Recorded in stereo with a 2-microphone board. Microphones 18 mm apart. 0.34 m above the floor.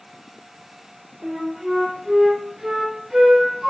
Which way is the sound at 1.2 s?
40° right (ahead or behind).